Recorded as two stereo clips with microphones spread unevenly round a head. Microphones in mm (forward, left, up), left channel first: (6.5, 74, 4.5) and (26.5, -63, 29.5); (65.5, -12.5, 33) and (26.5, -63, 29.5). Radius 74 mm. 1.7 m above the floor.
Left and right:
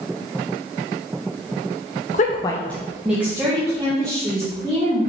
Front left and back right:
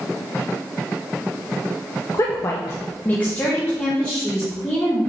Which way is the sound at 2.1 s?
85° left.